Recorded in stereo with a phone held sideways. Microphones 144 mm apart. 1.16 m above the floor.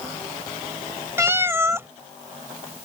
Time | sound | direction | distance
1.2 | a cat meowing | 20° right (ahead or behind) | ?